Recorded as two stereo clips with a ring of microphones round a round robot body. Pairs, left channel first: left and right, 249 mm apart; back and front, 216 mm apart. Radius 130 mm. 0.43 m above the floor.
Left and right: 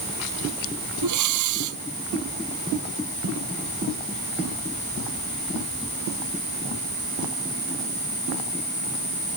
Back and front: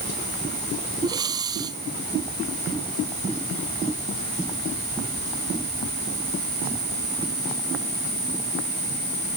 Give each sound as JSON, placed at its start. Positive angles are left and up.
{"t": 1.0, "sound": "breathing", "azimuth_deg": -75}